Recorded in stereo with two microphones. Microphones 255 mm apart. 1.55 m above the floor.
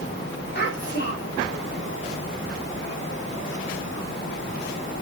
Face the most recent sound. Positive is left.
turn(degrees=45)  # may be behind; listen again after turning